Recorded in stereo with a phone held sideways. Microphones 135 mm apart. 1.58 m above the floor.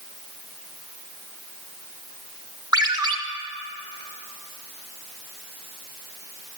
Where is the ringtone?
30° right (ahead or behind), 0.6 m.